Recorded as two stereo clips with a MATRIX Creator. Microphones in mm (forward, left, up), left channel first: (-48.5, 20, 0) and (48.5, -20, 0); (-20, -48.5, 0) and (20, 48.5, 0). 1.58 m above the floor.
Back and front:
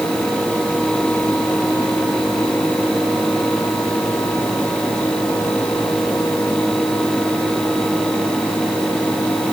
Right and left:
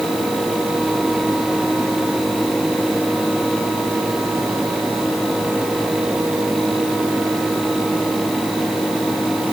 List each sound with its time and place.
Only background noise.